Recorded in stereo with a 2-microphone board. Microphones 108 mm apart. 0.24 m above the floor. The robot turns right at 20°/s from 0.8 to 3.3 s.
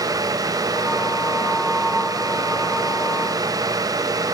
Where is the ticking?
I don't hear ticking.